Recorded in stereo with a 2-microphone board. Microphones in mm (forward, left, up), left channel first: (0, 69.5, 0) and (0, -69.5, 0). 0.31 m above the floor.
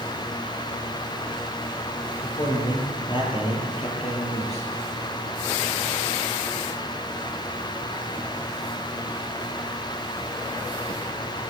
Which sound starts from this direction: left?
A man speaking, at 2.2 s.